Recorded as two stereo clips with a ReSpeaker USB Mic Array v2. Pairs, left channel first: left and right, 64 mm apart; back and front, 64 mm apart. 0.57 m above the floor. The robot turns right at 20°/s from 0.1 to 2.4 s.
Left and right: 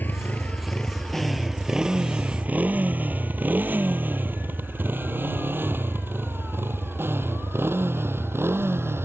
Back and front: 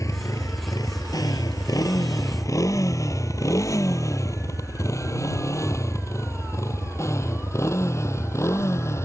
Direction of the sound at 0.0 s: 150° left.